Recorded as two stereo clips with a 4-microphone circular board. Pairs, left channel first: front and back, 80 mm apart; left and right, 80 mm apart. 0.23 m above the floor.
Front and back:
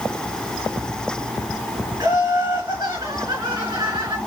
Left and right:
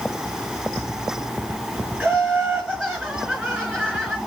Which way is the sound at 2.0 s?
Straight behind.